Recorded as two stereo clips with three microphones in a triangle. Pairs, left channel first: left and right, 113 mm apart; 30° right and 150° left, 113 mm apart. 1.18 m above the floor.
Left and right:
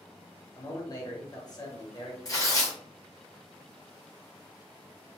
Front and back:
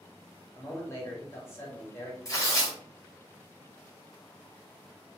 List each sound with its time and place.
0.6 s a man speaking: 35° left, 1.2 m
2.2 s tearing paper: 30° left, 1.1 m